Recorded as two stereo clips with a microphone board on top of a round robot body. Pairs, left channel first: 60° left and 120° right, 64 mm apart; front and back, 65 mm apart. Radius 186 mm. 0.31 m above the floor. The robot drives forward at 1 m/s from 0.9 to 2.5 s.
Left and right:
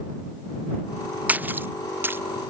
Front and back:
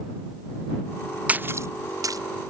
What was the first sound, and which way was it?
A splash, 145° right.